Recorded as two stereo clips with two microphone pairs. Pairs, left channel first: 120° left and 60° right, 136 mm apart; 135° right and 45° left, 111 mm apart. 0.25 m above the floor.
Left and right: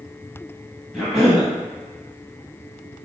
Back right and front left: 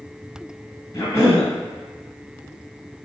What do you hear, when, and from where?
0.9 s a cough: 160° right, 1.4 m